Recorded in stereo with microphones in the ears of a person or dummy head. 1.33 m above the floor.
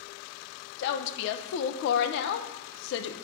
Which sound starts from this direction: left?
A woman speaking, at 0.8 s.